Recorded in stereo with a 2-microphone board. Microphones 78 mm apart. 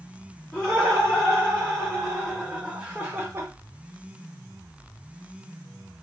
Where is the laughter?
15° left (ahead or behind), 2.5 m; by 3.5 s 35° right (ahead or behind), 0.9 m.